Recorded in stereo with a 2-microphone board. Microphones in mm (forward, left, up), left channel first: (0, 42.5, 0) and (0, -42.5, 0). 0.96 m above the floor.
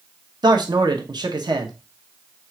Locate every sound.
0.4 s a man speaking: 55° right (ahead or behind), 0.9 m